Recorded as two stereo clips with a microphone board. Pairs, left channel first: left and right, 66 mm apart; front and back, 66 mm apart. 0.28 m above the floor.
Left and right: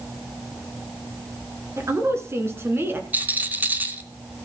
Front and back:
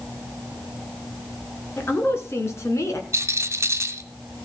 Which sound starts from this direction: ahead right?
A woman speaking, at 1.8 s.